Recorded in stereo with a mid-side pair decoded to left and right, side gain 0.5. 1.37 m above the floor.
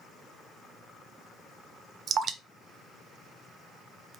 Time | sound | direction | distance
2.1 | dripping | 50° right | 0.5 m